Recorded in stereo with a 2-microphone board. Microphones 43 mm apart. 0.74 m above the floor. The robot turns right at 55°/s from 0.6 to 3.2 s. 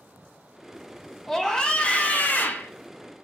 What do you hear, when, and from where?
1.3 s a scream: 10° left, 0.7 m; by 2.7 s 90° left, 0.7 m